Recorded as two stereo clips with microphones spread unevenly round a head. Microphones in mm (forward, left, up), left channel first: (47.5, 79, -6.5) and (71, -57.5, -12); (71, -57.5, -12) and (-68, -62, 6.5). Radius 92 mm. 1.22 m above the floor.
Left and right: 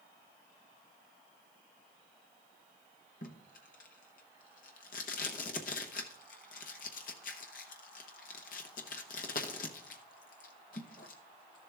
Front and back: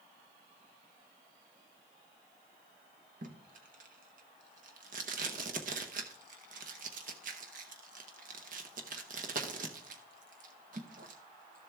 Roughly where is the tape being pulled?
Behind left.